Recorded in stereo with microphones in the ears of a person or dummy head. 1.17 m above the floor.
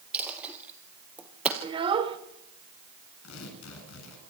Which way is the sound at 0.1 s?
10° right (ahead or behind).